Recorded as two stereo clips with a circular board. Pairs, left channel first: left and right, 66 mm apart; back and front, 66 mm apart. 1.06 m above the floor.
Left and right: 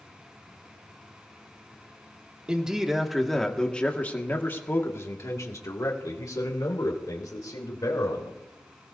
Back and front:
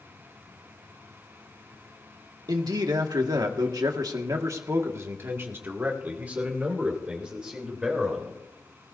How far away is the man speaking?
About 2 m.